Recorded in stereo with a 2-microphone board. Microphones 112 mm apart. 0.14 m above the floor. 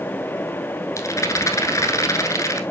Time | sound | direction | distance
1.0 | a rattle | 30° left (ahead or behind) | 1.1 m